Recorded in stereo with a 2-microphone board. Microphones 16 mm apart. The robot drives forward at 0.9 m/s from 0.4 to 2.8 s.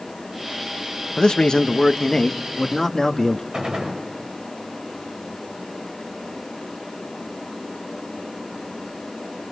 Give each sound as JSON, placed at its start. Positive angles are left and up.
{"t": 1.2, "sound": "a man speaking", "side_deg": 80, "distance_m": 1.0}
{"t": 3.5, "sound": "a gunshot", "side_deg": -70, "distance_m": 6.0}